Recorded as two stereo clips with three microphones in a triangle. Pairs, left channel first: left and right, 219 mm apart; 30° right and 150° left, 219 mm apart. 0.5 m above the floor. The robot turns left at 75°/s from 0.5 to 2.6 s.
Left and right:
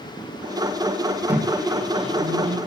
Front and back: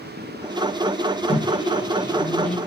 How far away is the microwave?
About 0.5 m.